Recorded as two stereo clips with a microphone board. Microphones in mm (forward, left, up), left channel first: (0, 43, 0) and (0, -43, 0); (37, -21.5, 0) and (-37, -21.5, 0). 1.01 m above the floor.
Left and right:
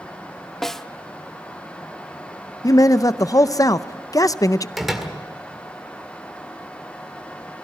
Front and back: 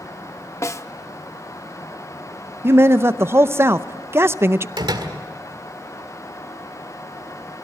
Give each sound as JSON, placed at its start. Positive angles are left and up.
{"t": 0.6, "sound": "a snare drum", "azimuth_deg": 10, "distance_m": 0.6}
{"t": 2.6, "sound": "a man speaking", "azimuth_deg": 130, "distance_m": 0.5}
{"t": 4.8, "sound": "a door slam", "azimuth_deg": -175, "distance_m": 1.9}